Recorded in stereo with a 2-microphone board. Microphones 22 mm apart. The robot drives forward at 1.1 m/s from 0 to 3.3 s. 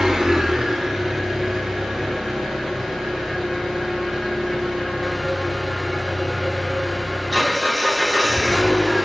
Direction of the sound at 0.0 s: 25° right (ahead or behind).